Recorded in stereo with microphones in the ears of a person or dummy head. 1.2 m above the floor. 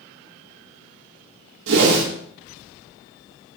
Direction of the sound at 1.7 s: 75° right (ahead or behind).